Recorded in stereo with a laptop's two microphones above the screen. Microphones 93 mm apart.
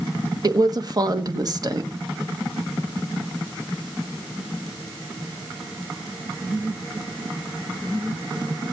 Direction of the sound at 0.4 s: 45° right (ahead or behind).